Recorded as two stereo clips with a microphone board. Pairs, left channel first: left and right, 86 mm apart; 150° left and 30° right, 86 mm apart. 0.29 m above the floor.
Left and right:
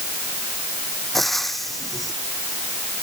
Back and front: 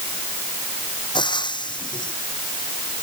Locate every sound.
1.1 s frying: straight behind